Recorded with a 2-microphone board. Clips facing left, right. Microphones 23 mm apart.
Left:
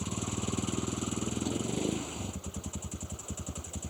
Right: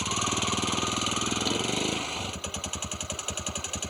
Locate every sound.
0.0 s a vehicle: 65° right (ahead or behind)